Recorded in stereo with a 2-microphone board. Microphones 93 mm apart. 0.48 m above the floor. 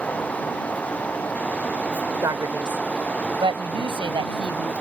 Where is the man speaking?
45° right (ahead or behind); by 4.7 s 60° right (ahead or behind).